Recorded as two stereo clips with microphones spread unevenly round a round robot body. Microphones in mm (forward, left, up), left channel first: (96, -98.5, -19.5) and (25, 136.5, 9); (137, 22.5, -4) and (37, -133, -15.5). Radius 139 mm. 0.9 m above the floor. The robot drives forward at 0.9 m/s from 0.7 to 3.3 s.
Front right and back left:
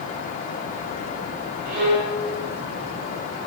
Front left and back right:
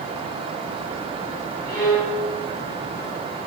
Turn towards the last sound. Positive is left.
turn(degrees=145)